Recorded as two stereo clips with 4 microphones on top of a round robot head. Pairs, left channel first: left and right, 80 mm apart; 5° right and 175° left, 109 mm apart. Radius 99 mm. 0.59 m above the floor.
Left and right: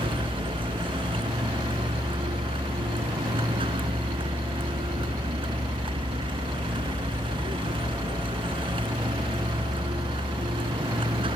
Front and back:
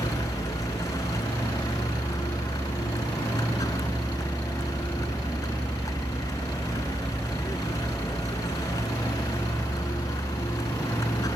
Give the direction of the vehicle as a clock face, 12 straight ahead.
2 o'clock.